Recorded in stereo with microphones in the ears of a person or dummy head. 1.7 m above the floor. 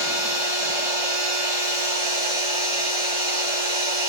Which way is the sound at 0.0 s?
20° right (ahead or behind).